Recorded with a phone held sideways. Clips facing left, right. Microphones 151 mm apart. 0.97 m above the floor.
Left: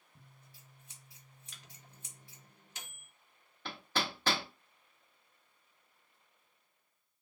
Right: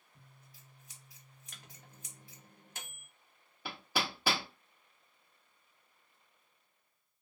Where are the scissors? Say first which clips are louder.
Even; 30° left (ahead or behind), 1.1 m.